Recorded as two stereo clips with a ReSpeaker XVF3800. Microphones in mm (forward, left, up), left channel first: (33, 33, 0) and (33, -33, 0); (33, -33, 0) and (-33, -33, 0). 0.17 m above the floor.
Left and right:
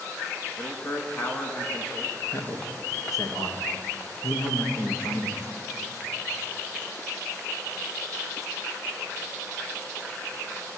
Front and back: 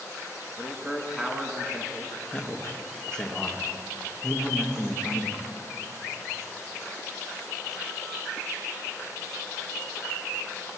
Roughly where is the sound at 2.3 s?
Left.